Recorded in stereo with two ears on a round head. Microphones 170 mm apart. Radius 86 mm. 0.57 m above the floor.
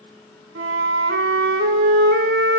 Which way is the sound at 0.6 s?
60° right (ahead or behind).